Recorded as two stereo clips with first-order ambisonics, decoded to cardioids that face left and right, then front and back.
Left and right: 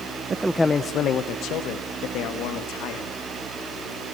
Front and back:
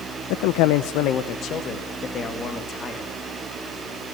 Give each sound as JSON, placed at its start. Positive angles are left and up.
{"t": 0.3, "sound": "a man speaking", "azimuth_deg": -20, "distance_m": 0.6}